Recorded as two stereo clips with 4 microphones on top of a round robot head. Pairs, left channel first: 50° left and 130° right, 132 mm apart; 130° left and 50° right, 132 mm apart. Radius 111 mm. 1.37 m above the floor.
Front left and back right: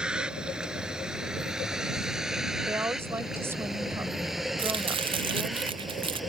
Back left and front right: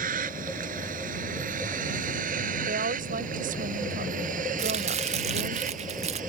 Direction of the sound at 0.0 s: 45° right.